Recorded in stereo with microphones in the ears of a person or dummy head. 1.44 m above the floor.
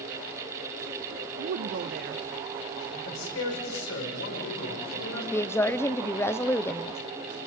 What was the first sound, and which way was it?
A woman speaking, 50° right (ahead or behind).